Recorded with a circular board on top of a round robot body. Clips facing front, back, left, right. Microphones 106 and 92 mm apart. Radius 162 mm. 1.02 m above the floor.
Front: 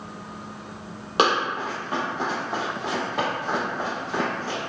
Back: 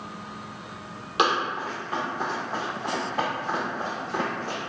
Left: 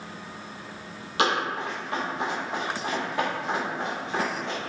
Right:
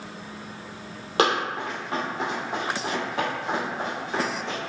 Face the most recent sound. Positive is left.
turn(degrees=-15)